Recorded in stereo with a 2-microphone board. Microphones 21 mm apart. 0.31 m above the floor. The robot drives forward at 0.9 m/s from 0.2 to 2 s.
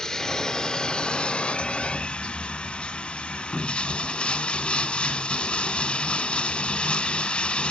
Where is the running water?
30° left (ahead or behind), 1.5 m; by 7.7 s 65° left (ahead or behind), 0.9 m.